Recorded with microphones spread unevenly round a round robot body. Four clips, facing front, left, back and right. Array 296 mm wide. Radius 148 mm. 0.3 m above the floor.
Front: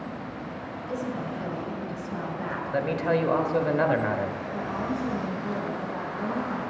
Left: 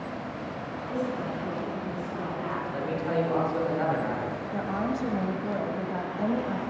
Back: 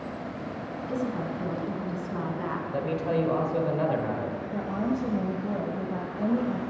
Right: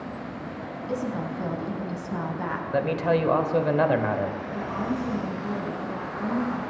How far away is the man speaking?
About 1.4 m.